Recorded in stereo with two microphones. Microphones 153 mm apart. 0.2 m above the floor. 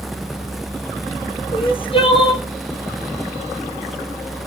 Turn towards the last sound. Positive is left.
turn(degrees=35)  # may be behind; listen again after turning